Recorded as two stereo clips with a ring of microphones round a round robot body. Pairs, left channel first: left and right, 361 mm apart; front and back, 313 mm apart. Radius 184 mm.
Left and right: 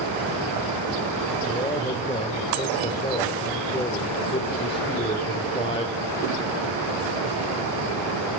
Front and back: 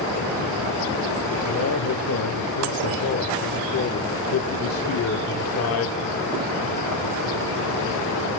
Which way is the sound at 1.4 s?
20° left.